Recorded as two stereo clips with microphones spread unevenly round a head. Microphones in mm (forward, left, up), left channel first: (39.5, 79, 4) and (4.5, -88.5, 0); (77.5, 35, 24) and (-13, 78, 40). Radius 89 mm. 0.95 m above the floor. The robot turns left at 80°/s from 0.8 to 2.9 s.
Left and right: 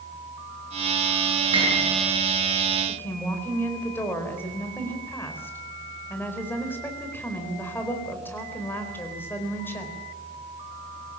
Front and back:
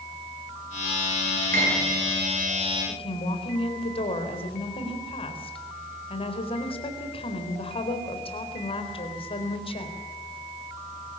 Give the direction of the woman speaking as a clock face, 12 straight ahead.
12 o'clock.